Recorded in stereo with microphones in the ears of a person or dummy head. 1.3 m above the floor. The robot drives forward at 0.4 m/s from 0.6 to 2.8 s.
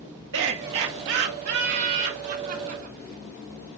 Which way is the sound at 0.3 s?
65° right (ahead or behind).